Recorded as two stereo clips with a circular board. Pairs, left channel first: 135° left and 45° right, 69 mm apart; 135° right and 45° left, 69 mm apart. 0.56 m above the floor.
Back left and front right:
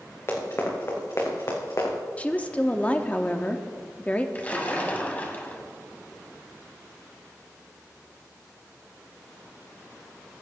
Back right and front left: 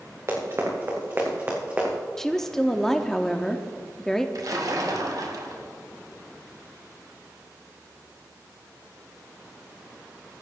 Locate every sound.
0.3 s running footsteps: 85° left, 3 m; by 2.0 s 110° left, 2.5 m
2.2 s a woman speaking: 150° left, 0.7 m
4.3 s a splash: 70° left, 1.5 m